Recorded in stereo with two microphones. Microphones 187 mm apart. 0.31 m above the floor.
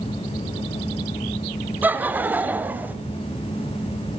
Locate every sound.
1.8 s laughter: 10° right (ahead or behind), 1.2 m